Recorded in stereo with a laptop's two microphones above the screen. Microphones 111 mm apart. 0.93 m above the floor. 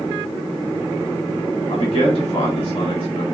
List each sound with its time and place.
1.7 s a man speaking: 50° left (ahead or behind), 1.1 m